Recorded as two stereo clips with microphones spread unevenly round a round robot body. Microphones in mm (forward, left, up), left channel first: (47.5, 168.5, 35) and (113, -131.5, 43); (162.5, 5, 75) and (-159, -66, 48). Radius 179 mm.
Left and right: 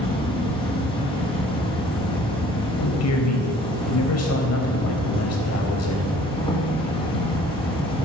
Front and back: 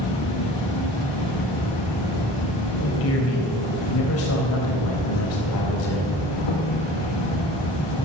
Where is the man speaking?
65° left, 4 m.